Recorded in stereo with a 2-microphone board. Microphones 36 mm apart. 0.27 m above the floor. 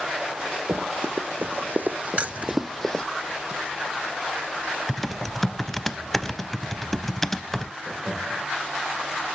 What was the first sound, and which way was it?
Running footsteps, 70° right (ahead or behind).